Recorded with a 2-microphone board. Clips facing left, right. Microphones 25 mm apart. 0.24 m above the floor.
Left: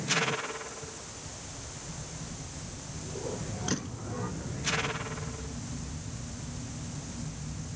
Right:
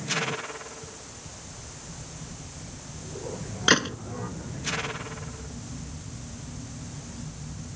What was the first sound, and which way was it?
A gunshot, 60° right (ahead or behind).